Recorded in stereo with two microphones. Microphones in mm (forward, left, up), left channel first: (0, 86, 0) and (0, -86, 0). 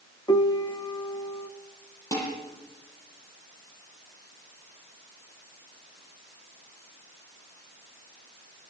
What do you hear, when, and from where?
0.3 s a piano: 25° left (ahead or behind), 0.9 m
2.1 s dishes clattering: 20° left (ahead or behind), 10 m